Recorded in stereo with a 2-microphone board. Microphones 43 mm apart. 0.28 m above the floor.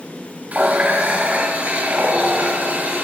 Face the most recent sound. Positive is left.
turn(degrees=-35)  # may be behind; listen again after turning